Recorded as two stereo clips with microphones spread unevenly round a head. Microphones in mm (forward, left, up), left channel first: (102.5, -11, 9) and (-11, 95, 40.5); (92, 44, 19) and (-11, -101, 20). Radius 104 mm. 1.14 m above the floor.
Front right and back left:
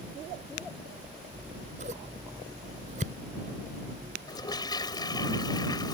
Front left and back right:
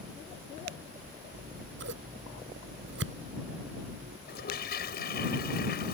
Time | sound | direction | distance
1.3 | scissors | 165° right | ?
4.3 | a toilet flushing | 25° left | ?